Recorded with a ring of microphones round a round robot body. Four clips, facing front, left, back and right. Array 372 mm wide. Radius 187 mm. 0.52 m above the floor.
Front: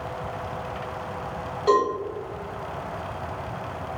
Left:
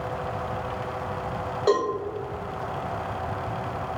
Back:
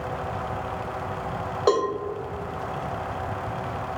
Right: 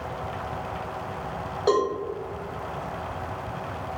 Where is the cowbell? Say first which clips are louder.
Even, front 1 dB; 175° right, 1.3 m.